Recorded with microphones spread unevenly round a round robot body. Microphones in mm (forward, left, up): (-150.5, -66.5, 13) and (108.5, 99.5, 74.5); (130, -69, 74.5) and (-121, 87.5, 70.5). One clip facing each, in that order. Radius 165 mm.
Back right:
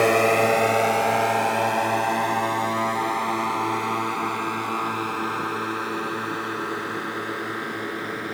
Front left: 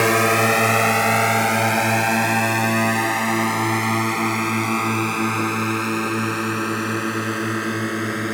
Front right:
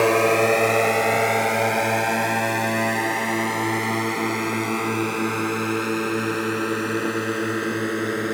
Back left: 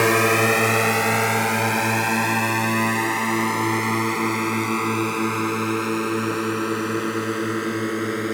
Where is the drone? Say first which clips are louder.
Even, front right 1 dB; 90° left; by 8.4 s 65° left.